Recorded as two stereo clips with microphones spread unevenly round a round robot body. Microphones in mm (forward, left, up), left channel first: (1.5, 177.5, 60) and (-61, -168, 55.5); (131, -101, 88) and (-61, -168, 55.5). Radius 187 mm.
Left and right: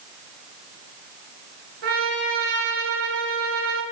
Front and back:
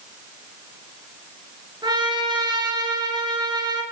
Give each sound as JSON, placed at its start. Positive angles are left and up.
{"t": 1.8, "sound": "a trumpet", "azimuth_deg": -90, "distance_m": 6.5}